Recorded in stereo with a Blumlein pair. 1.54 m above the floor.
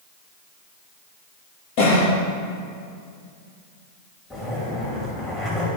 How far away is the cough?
About 2 m.